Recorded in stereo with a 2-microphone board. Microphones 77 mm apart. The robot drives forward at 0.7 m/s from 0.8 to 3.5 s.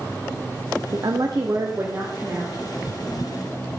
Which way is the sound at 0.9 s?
60° right (ahead or behind).